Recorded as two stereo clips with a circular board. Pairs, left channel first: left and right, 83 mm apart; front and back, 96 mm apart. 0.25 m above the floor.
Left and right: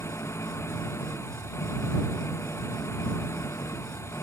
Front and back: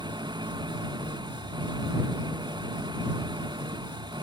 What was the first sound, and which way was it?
An engine running, 145° left.